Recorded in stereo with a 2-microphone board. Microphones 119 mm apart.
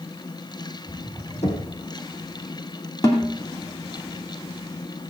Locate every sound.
1.4 s knocking: 65° left (ahead or behind), 4 m
3.0 s a snare drum: 30° left (ahead or behind), 2.5 m